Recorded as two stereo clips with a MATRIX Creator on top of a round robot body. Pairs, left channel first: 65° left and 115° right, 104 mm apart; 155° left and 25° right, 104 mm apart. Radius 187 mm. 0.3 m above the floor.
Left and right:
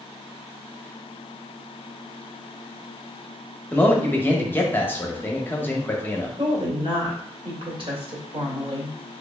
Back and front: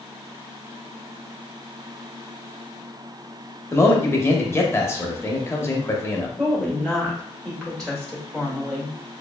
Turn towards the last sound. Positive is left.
turn(degrees=-120)